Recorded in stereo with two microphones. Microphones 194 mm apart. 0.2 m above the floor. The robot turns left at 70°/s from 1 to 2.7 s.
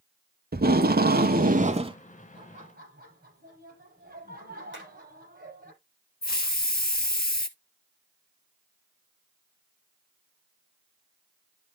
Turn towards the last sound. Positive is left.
turn(degrees=55)  # may be behind; listen again after turning